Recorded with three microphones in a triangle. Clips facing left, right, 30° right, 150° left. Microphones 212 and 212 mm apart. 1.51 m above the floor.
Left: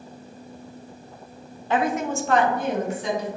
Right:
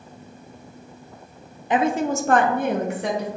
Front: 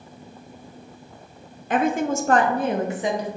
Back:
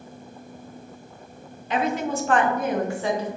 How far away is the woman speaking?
About 0.5 m.